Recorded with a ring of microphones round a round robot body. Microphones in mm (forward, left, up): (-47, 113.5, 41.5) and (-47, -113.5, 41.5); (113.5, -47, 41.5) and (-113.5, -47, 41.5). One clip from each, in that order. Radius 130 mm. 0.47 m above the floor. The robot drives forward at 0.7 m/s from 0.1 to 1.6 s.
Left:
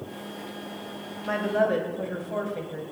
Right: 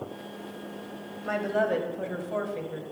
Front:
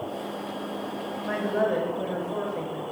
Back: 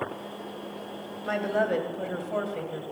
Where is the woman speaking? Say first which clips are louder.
Left 2 dB, even; 155° right, 2.5 m; by 2.8 s 160° right, 2.5 m.